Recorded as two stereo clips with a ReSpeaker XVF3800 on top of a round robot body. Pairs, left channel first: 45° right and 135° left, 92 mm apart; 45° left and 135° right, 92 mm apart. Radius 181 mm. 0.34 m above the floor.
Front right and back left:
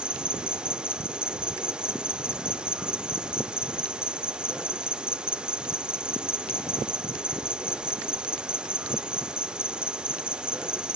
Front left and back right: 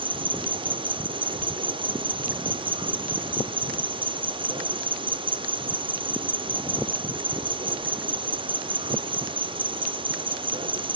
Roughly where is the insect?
Behind right.